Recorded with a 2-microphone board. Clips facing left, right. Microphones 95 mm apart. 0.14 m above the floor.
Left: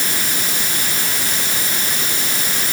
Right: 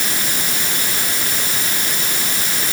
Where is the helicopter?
I don't hear a helicopter.